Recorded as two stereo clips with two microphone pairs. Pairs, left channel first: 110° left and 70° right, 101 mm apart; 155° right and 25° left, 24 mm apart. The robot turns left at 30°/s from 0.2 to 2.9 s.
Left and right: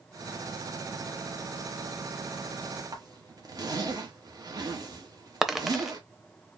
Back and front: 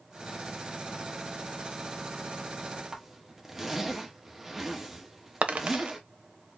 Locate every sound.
2.9 s a zipper: 50° right, 1.4 m
5.4 s a dropped coin: 15° left, 0.8 m